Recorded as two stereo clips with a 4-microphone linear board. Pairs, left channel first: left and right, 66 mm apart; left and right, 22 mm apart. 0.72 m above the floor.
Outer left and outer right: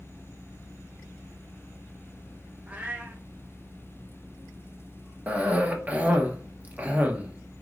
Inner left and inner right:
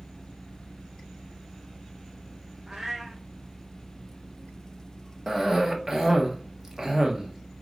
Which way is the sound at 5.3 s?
20° right (ahead or behind).